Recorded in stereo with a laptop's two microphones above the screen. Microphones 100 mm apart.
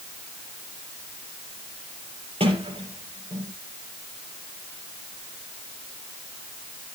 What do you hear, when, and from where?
2.4 s a sliding door: 65° right (ahead or behind), 5.5 m